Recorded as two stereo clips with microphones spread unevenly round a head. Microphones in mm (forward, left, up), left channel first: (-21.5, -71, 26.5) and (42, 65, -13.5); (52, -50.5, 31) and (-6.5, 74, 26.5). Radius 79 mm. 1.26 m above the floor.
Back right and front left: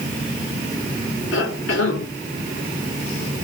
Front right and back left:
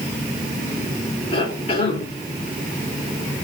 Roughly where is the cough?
Behind right.